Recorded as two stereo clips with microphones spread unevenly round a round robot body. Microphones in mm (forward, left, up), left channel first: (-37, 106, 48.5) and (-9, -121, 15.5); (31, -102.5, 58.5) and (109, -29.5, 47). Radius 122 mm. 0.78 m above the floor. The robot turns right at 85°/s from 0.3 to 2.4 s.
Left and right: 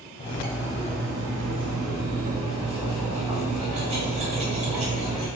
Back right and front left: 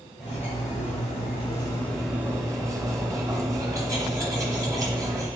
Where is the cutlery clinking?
165° left, 2 m; by 5.3 s 15° right, 2 m.